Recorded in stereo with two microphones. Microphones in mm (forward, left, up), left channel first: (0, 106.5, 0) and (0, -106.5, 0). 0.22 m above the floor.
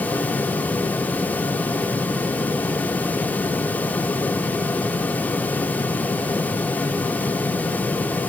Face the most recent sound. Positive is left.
No sound to turn to.